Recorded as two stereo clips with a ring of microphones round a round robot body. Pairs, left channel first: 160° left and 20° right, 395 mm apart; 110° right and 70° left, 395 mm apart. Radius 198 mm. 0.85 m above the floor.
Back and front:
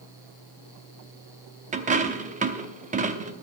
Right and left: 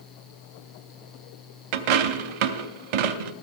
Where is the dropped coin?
50° left, 0.7 m.